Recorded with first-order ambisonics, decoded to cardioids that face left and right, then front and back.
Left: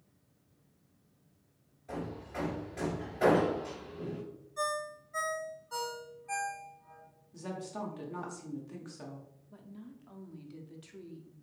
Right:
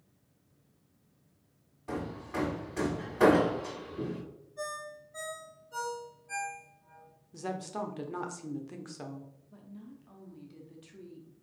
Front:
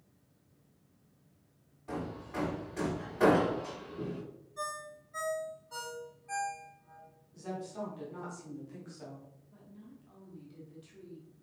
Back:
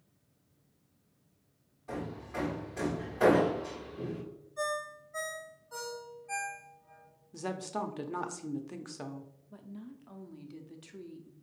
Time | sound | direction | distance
1.9 | hammering | 75° right | 1.6 m
4.6 | a ringtone | 80° left | 1.1 m
7.3 | a woman speaking | 155° right | 0.6 m
9.5 | a woman speaking | 160° left | 0.5 m